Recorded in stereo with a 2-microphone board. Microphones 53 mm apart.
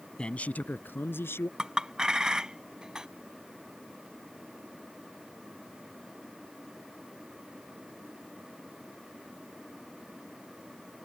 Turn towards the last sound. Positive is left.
turn(degrees=-15)  # may be behind; listen again after turning